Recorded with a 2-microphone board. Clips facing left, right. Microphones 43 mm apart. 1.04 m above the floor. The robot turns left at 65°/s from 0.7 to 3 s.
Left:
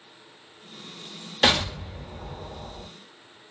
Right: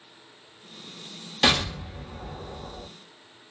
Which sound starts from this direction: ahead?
An explosion, at 1.4 s.